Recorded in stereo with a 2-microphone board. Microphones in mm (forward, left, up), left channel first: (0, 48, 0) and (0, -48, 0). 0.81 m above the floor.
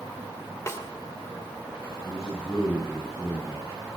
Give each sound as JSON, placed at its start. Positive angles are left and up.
{"t": 0.7, "sound": "a snare drum", "side_deg": 30, "distance_m": 2.0}
{"t": 2.0, "sound": "a man speaking", "side_deg": 30, "distance_m": 8.0}